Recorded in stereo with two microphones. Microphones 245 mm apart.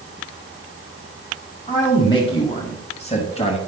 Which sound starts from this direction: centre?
A man speaking, at 1.7 s.